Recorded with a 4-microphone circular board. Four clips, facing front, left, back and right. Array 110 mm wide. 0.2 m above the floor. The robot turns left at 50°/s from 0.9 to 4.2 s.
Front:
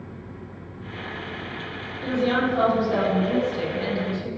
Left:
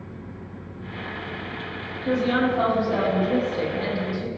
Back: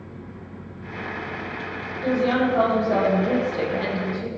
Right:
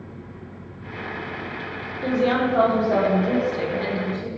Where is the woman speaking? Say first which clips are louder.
Right 1 dB, back 2 dB; 90° right, 6 m; by 4.3 s 160° left, 6 m.